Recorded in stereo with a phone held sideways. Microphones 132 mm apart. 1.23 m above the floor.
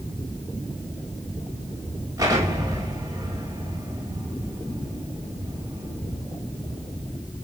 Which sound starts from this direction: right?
An explosion, at 2.2 s.